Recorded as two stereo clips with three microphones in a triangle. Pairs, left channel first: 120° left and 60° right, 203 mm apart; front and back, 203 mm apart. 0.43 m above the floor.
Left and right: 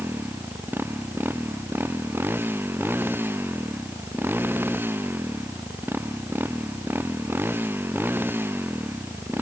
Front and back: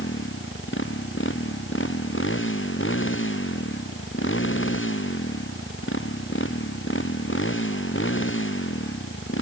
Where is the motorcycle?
20° left.